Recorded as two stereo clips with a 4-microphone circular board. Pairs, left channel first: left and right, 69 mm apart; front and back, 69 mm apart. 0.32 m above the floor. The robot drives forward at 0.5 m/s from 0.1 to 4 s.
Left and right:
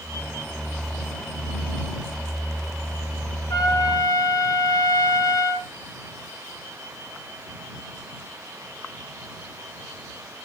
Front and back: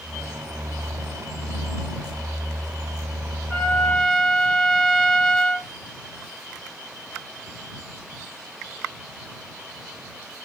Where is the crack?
No crack in this recording.